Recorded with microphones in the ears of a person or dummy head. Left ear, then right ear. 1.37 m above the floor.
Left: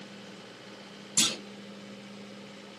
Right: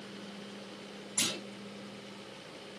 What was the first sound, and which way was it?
A clunk, 75° left (ahead or behind).